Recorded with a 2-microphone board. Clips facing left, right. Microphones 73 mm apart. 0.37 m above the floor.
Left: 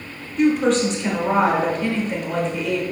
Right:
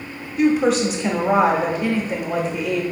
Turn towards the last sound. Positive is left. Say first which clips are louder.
# even
turn(degrees=-5)  # may be behind; listen again after turning